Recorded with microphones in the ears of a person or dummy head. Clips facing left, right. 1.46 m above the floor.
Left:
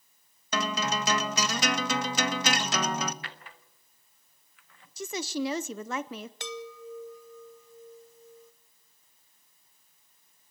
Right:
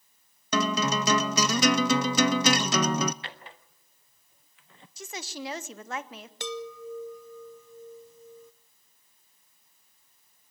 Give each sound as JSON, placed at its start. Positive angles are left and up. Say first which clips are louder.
{"t": 0.5, "sound": "a guitar", "louder": "right 4 dB", "side_deg": -75, "distance_m": 0.7}
{"t": 3.2, "sound": "a drawer", "louder": "right 2 dB", "side_deg": -20, "distance_m": 0.7}
{"t": 5.0, "sound": "a woman speaking", "louder": "left 7 dB", "side_deg": 75, "distance_m": 0.8}
{"t": 6.4, "sound": "a chime", "louder": "right 4 dB", "side_deg": -85, "distance_m": 0.8}